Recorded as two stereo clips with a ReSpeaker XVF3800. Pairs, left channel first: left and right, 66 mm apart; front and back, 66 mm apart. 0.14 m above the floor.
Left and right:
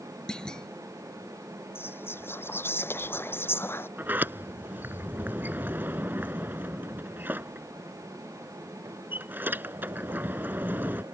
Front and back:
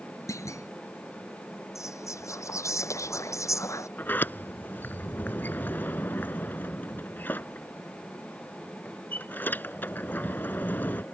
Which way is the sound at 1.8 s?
35° left.